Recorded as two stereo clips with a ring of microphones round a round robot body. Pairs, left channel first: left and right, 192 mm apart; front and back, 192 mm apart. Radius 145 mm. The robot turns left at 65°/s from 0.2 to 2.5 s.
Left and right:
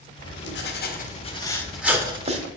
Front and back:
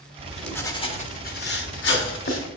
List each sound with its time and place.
0.2 s writing: 100° left, 1.4 m; by 2.5 s 45° right, 1.4 m